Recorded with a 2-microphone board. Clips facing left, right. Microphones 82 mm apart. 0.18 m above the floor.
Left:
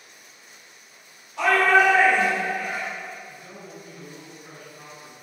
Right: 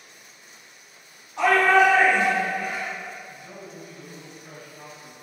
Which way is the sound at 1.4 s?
30° right (ahead or behind).